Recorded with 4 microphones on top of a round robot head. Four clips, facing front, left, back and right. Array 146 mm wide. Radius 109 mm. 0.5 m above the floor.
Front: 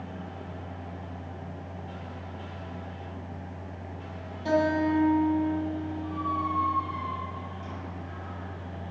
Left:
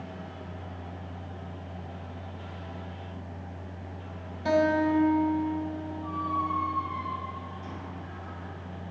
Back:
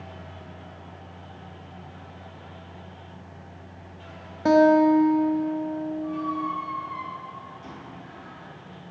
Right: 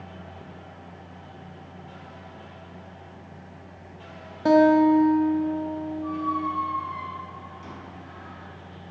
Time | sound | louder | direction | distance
4.5 | a guitar | right 8 dB, back 8 dB | 140° right | 0.7 m
6.0 | a squeak | right 2 dB, front 1 dB | 95° right | 3.5 m